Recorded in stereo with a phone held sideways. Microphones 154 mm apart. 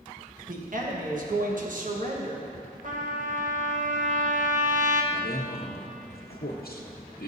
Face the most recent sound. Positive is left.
turn(degrees=80)